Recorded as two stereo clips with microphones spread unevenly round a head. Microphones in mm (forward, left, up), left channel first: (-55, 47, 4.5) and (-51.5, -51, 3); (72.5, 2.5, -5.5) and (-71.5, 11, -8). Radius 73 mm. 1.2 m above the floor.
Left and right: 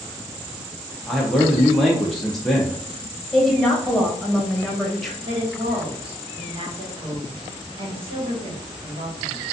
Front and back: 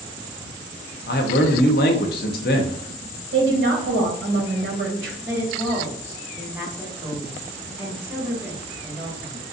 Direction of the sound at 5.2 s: 110° right.